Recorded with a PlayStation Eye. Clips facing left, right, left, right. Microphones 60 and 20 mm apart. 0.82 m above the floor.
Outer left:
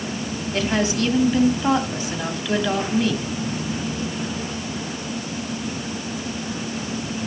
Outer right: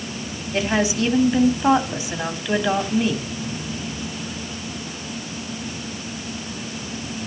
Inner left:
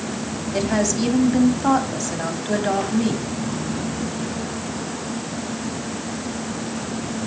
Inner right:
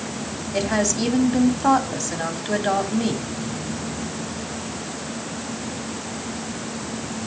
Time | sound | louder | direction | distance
0.5 | a woman speaking | outer right 1 dB, inner left 1 dB | 10° right (ahead or behind) | 2.0 m